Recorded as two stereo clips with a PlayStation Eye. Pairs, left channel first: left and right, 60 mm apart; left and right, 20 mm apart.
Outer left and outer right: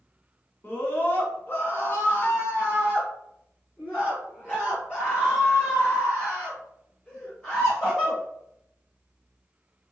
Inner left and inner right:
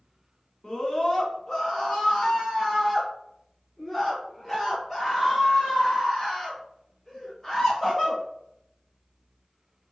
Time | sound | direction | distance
0.6 | a scream | 35° left (ahead or behind) | 1.8 m